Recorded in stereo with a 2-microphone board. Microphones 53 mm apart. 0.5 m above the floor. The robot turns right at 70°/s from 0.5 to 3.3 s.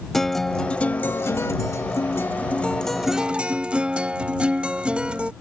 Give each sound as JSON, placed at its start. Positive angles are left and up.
{"t": 0.1, "sound": "a guitar", "azimuth_deg": 10}